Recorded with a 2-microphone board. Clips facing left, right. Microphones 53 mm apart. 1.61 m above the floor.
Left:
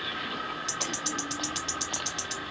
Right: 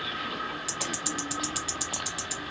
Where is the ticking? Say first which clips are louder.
Even; 5° right (ahead or behind), 0.6 m.